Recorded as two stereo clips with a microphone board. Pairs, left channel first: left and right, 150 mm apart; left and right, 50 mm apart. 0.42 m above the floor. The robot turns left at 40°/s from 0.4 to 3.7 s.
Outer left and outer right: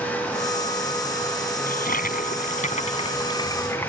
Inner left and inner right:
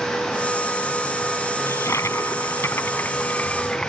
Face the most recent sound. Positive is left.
turn(degrees=15)